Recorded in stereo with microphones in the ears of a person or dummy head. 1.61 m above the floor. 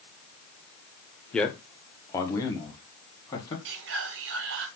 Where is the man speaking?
5° left (ahead or behind), 0.7 m; by 3.5 s 25° left (ahead or behind), 1.8 m.